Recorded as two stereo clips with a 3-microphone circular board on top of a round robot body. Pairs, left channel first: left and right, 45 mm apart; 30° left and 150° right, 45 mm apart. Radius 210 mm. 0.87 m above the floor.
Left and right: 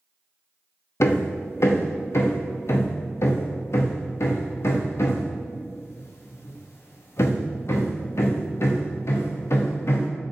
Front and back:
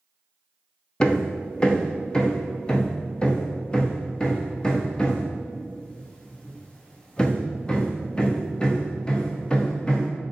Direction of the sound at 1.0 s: 100° left.